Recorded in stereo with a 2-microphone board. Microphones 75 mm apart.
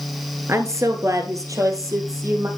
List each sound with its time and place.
0.5 s a woman speaking: 40° right (ahead or behind), 1.7 m; by 2.5 s 45° right (ahead or behind), 3.5 m